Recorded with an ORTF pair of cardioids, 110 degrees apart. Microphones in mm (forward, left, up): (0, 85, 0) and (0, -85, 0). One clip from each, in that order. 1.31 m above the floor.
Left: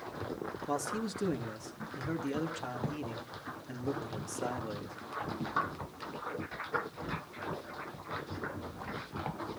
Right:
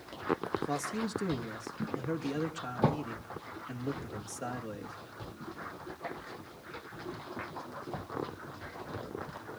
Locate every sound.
0.7 s a man speaking: straight ahead, 2.5 m